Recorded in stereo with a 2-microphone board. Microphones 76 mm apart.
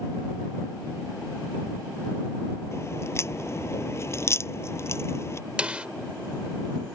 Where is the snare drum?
15° right (ahead or behind).